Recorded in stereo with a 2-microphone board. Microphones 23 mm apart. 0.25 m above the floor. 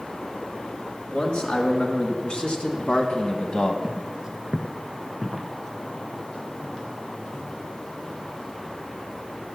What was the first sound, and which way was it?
A man speaking, 55° left (ahead or behind).